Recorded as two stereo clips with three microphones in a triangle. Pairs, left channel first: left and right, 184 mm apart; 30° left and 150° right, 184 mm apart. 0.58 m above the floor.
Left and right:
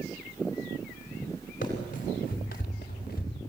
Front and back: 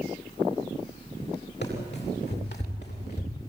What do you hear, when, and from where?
1.6 s running footsteps: 50° left, 8.5 m; by 3.4 s 55° left, 8 m